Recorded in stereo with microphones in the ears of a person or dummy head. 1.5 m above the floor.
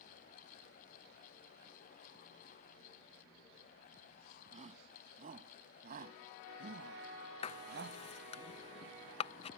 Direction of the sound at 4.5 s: 40° right (ahead or behind).